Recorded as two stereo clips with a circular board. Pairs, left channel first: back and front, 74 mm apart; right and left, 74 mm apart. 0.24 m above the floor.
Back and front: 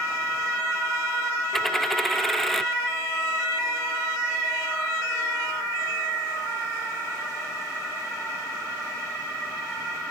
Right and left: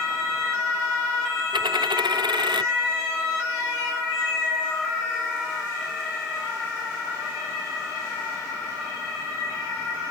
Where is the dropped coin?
95° left.